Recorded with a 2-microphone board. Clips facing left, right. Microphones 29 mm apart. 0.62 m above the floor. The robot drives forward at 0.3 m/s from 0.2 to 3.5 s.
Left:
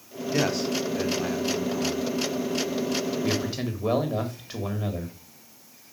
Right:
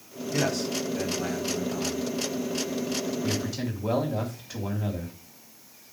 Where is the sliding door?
No sliding door in this recording.